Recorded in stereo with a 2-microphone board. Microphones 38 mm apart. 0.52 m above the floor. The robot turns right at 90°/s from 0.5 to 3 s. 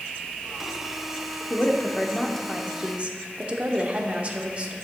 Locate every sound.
1.5 s a woman speaking: 90° left, 0.9 m; by 4.7 s 135° right, 0.9 m